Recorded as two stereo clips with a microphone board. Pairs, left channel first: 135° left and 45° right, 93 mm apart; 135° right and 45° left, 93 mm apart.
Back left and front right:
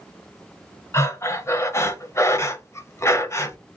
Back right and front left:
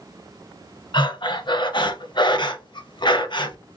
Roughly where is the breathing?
Behind.